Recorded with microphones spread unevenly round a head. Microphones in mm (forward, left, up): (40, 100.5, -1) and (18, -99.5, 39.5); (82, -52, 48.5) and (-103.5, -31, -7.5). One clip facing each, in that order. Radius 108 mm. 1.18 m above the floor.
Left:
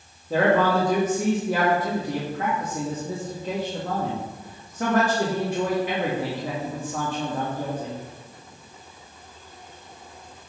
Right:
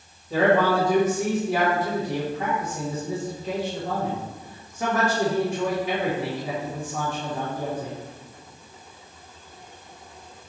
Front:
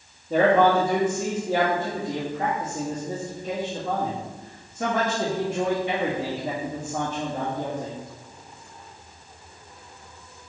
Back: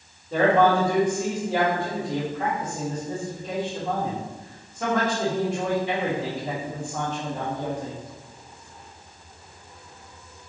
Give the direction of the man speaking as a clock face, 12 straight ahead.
10 o'clock.